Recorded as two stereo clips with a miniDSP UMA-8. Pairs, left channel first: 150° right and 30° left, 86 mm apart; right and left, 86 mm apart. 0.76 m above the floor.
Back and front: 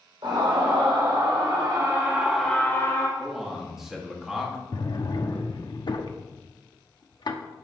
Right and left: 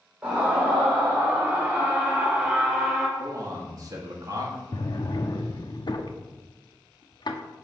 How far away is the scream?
About 3 m.